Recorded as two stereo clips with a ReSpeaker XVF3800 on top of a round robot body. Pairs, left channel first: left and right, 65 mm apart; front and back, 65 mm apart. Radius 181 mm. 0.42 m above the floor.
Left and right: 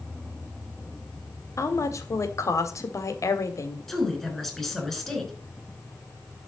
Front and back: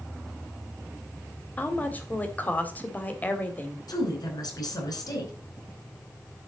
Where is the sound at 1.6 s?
60° left, 2 m.